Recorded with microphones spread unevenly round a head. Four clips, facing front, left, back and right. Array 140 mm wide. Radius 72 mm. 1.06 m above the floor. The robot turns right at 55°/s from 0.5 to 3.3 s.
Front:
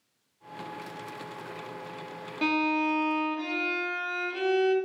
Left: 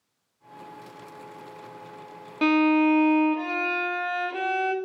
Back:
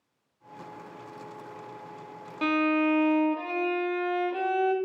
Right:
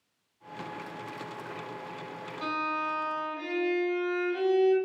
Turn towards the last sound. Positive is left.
turn(degrees=130)